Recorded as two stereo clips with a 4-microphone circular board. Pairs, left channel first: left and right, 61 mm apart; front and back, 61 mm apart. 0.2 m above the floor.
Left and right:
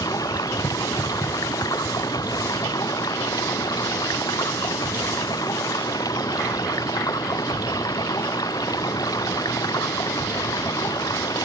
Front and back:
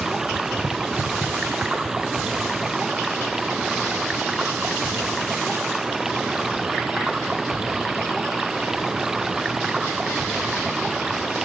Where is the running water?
100° left.